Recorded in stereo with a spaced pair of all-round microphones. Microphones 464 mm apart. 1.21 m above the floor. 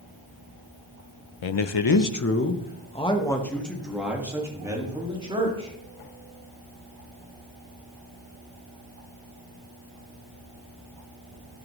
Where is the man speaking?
70° left (ahead or behind), 0.6 m; by 5.7 s 10° right (ahead or behind), 2.5 m.